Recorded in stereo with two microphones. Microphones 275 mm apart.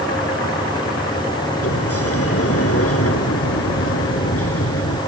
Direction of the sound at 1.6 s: 55° left (ahead or behind).